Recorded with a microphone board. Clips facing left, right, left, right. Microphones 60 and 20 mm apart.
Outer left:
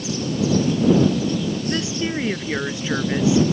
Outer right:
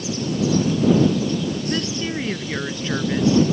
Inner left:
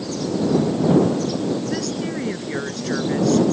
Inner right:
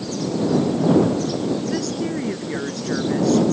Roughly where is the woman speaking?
Centre.